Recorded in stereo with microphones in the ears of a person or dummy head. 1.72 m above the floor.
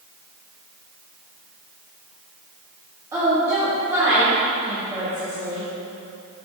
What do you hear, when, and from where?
3.1 s a woman speaking: 20° right (ahead or behind), 1.9 m